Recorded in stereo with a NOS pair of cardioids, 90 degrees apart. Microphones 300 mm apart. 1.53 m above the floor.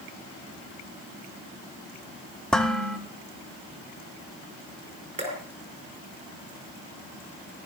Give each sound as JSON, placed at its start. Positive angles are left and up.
{"t": 2.5, "sound": "dishes clattering", "azimuth_deg": 0, "distance_m": 1.8}
{"t": 5.2, "sound": "dripping", "azimuth_deg": -20, "distance_m": 5.5}